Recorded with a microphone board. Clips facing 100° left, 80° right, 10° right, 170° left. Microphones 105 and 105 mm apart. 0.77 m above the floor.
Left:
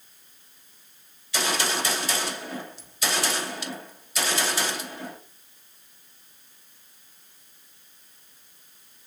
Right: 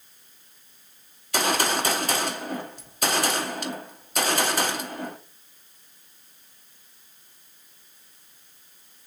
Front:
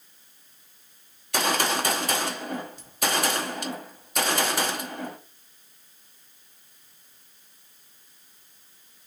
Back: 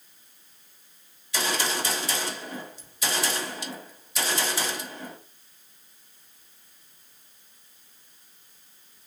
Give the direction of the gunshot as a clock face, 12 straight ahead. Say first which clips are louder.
Right 3 dB, front 4 dB; 1 o'clock.